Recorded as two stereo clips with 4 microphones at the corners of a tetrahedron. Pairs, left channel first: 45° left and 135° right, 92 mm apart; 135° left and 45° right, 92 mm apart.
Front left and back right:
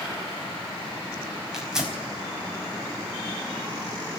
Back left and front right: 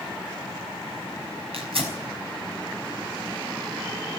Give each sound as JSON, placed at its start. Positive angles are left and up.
{"t": 1.5, "sound": "tearing paper", "azimuth_deg": -50, "distance_m": 5.0}